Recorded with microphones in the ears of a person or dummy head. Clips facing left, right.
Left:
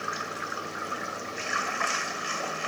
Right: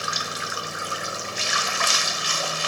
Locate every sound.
0.0 s running water: 55° right (ahead or behind)